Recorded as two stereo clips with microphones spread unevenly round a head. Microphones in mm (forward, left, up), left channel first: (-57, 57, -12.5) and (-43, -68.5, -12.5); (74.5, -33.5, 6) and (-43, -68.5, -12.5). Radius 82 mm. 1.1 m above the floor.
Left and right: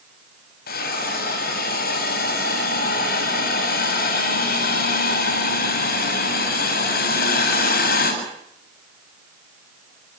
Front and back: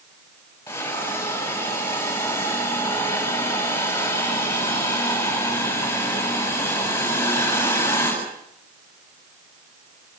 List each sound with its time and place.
0.7 s a hiss: 95° left, 8 m